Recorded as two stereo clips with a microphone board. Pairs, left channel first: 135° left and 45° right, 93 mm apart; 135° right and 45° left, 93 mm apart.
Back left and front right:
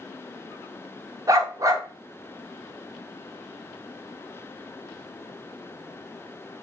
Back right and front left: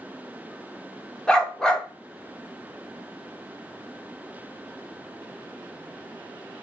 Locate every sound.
1.3 s a dog barking: 55° right, 0.6 m